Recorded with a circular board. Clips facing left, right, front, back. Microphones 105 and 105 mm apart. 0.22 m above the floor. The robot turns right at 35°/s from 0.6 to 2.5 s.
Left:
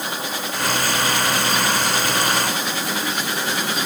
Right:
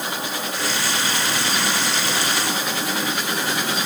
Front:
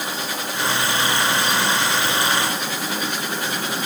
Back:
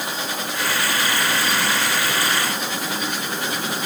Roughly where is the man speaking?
I don't hear a man speaking.